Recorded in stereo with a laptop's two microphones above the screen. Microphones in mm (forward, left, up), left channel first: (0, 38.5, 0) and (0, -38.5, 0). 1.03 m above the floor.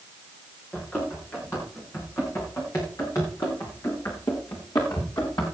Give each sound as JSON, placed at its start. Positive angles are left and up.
{"t": 0.7, "sound": "running footsteps", "side_deg": 25, "distance_m": 10.0}